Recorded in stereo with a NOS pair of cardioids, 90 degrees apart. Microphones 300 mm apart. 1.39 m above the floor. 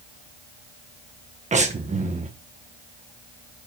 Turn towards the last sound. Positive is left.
turn(degrees=-25)